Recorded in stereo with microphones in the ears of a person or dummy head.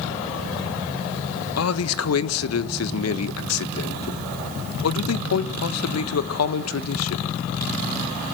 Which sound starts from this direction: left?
A man speaking, at 1.6 s.